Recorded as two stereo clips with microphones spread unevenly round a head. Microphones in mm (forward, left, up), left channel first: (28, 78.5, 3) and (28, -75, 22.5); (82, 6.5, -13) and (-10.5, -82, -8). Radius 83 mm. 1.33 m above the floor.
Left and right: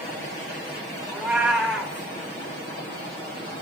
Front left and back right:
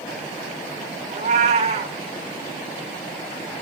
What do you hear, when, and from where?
1.1 s a cat meowing: 170° right, 1.7 m